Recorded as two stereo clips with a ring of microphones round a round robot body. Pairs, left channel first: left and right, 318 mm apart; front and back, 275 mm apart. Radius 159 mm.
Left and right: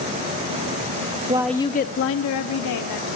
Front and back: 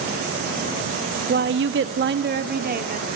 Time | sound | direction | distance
1.3 | a woman speaking | 150° right | 0.8 m